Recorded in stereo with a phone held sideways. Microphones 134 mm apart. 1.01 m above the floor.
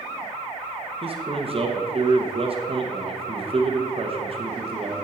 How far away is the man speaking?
About 1.0 m.